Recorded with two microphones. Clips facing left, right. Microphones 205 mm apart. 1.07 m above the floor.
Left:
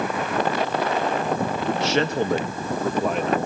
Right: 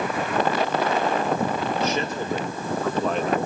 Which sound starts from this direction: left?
A man speaking, at 1.7 s.